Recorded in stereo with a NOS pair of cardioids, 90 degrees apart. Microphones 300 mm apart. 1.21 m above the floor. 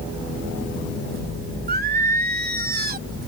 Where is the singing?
30° right.